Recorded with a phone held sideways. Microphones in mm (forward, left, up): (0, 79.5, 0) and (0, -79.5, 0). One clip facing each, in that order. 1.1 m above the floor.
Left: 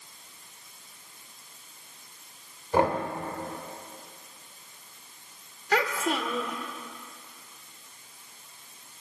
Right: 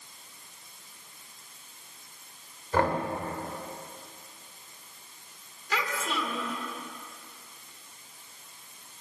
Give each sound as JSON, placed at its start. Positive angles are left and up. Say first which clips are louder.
{"t": 2.7, "sound": "knocking", "louder": "left 2 dB", "side_deg": 20, "distance_m": 2.5}
{"t": 5.7, "sound": "a child speaking", "louder": "left 5 dB", "side_deg": 60, "distance_m": 1.8}